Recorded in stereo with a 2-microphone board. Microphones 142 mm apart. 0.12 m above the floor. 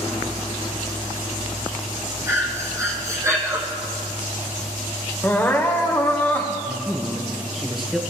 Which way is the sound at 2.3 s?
20° right (ahead or behind).